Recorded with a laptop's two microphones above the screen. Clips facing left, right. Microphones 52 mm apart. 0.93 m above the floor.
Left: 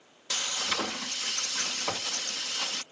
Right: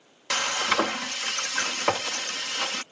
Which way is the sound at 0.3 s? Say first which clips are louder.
Right 8 dB; 60° right (ahead or behind).